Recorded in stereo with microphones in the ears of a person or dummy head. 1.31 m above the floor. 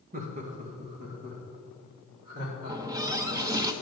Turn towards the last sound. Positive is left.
turn(degrees=-20)  # may be behind; listen again after turning